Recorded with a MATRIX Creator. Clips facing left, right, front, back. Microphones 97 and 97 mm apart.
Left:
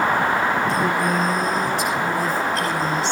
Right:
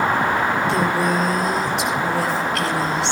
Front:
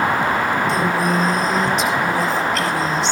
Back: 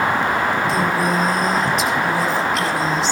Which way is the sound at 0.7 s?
90° right.